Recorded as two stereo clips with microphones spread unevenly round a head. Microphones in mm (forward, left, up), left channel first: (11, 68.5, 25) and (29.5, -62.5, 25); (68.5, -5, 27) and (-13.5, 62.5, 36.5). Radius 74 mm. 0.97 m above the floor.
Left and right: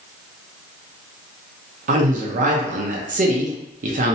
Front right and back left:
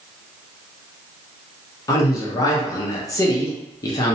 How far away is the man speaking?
About 0.7 m.